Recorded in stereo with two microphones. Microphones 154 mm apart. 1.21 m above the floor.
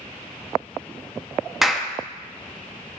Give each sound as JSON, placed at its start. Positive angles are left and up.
{"t": 1.6, "sound": "a clap", "side_deg": 0, "distance_m": 1.0}